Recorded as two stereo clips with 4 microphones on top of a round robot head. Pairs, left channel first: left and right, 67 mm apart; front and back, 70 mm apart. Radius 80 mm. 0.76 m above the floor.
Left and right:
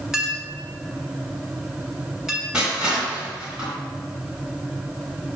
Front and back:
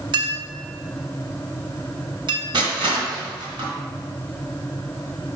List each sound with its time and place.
0.1 s a clink: 175° right, 1.5 m
2.5 s crushing: 165° right, 3 m